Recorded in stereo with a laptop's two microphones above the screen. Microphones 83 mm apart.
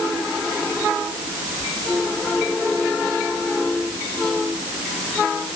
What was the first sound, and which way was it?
Only background noise.